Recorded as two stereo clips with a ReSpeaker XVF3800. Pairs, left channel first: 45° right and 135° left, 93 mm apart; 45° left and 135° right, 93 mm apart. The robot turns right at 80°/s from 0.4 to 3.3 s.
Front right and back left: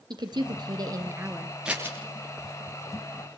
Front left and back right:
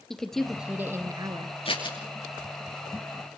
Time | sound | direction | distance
0.1 | a woman speaking | 130° left | 2.5 m
1.6 | scissors | 55° left | 7.5 m